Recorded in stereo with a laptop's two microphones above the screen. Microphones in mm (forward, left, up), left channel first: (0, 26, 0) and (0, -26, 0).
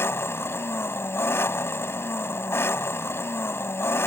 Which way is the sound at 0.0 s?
55° left (ahead or behind).